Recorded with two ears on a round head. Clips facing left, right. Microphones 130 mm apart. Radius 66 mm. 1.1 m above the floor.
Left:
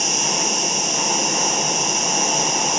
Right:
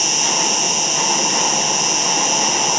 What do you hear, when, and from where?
0.0 s an insect: 40° right (ahead or behind), 1.0 m